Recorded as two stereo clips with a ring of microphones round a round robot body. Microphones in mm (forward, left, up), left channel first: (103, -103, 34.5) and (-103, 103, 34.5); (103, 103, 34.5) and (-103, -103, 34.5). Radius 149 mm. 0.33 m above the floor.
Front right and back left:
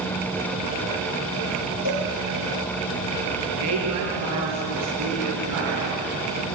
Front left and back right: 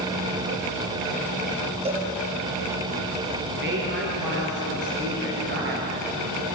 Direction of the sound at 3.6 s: 170° left.